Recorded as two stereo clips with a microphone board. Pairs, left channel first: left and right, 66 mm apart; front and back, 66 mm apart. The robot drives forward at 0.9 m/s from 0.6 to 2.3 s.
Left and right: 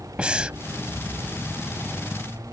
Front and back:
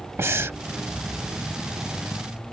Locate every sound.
0.2 s breathing: 155° right